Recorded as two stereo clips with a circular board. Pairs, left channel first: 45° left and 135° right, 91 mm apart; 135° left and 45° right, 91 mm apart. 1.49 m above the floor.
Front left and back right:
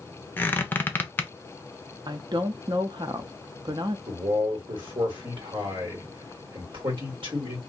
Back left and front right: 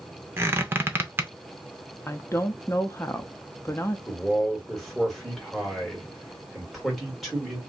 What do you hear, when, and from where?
0.4 s a squeak: straight ahead, 0.5 m
2.1 s a woman speaking: 165° right, 0.5 m
4.1 s a man speaking: 135° right, 1.5 m